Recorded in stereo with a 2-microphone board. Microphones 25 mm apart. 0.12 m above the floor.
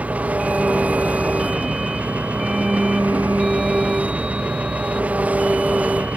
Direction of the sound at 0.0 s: 85° right.